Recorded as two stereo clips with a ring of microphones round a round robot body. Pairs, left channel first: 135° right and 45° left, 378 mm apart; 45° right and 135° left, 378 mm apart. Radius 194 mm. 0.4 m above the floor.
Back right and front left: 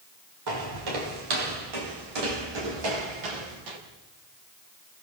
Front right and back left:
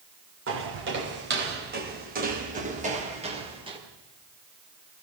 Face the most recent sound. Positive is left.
turn(degrees=55)